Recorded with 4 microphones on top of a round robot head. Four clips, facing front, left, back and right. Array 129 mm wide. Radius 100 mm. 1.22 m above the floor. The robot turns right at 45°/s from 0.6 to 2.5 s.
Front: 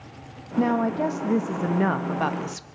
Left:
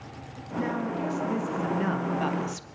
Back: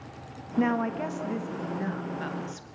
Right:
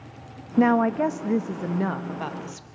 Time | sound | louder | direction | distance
0.6 | a woman speaking | right 10 dB, front 4 dB | 80° right | 1.3 m